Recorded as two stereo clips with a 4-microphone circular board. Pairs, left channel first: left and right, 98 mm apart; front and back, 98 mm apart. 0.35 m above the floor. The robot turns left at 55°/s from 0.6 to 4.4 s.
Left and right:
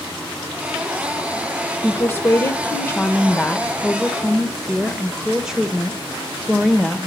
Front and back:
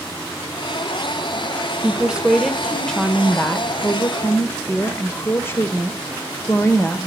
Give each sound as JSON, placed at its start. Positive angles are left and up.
{"t": 1.8, "sound": "a woman speaking", "azimuth_deg": 125, "distance_m": 1.1}